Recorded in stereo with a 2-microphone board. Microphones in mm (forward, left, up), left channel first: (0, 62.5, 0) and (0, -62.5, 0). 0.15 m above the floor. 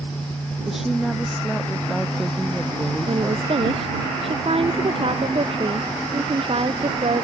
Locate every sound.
0.7 s a woman speaking: centre (ahead or behind)
3.1 s a woman speaking: 50° right (ahead or behind)